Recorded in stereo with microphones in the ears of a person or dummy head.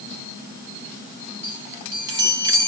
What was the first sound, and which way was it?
A chime, 20° right (ahead or behind).